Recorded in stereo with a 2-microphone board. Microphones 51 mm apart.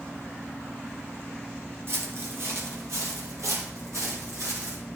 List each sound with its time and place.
1.9 s footsteps: 45° right (ahead or behind), 1.9 m; by 4.8 s 70° right (ahead or behind), 3.5 m